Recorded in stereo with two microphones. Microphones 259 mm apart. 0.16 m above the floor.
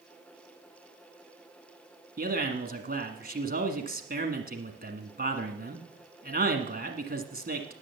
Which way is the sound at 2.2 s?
35° right (ahead or behind).